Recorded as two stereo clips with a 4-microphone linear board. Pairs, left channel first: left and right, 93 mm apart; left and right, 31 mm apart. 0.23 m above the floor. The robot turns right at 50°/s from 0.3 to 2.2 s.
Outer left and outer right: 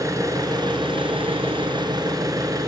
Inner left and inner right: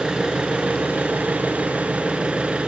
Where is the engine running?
140° right, 1.8 m; by 2.7 s 45° right, 1.8 m.